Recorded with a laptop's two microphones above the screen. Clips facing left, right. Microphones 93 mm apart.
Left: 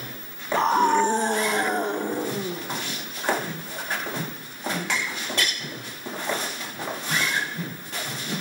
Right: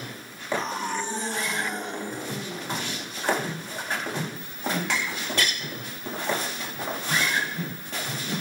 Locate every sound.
0.5 s a scream: 65° left (ahead or behind), 1.3 m; by 2.6 s 45° left (ahead or behind), 2.5 m